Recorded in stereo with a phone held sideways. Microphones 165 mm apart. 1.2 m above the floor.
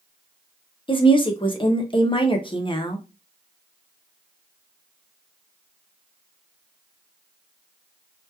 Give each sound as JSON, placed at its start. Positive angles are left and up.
{"t": 0.9, "sound": "a woman speaking", "side_deg": 30, "distance_m": 0.5}